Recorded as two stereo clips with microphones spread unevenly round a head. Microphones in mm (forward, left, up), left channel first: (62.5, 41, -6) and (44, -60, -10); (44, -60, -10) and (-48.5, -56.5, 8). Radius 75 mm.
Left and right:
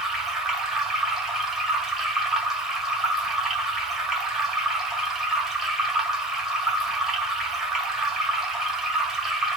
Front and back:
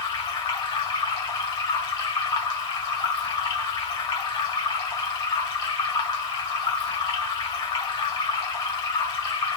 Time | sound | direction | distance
0.0 | running water | 15° right | 1.7 m